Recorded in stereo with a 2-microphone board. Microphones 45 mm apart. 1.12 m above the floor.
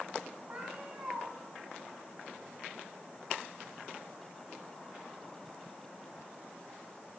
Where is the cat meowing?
30° right (ahead or behind), 3 m.